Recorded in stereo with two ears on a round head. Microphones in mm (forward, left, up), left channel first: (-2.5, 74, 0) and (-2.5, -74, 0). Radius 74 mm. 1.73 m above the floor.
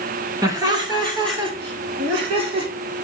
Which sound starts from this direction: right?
Laughter, at 0.4 s.